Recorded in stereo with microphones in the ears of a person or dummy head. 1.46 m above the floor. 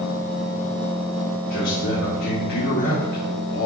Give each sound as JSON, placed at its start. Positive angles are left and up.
{"t": 1.5, "sound": "a man speaking", "side_deg": 75, "distance_m": 2.5}